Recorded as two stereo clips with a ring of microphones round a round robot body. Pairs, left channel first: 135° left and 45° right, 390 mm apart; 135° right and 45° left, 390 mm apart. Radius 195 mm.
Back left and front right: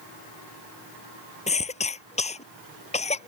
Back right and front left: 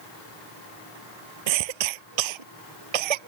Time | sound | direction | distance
1.5 | a cough | 60° left | ?